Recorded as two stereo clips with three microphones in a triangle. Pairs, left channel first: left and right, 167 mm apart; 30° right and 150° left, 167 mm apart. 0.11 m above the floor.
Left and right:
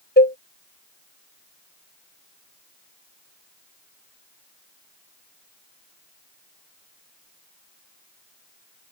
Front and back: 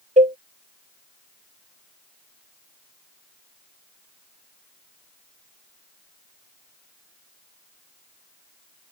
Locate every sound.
0.2 s a cowbell: 105° left